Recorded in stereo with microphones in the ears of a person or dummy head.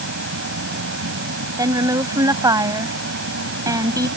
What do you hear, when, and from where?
0.0 s an insect: 65° right (ahead or behind)
1.6 s a woman speaking: 20° right (ahead or behind)